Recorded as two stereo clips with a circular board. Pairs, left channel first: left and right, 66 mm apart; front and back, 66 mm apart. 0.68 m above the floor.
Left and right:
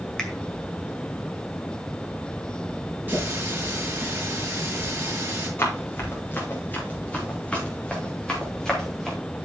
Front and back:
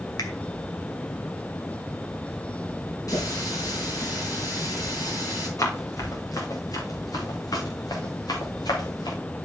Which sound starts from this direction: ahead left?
Running footsteps, at 5.6 s.